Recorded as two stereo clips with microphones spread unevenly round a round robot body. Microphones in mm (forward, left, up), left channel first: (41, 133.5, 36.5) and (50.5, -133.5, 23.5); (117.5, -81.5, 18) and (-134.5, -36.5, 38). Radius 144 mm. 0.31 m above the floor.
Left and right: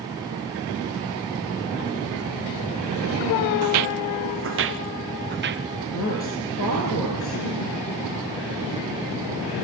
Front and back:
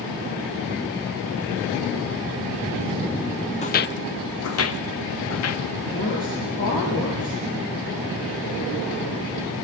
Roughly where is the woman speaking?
Ahead left.